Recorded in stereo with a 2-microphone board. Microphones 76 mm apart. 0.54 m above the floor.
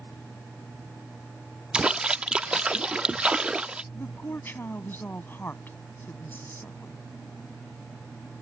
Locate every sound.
1.7 s a splash: 15° right (ahead or behind)
3.9 s a woman speaking: 25° left (ahead or behind)